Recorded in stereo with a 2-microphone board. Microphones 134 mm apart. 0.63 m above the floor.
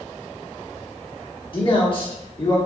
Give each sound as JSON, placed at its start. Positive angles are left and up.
{"t": 1.5, "sound": "a man speaking", "side_deg": 40, "distance_m": 1.6}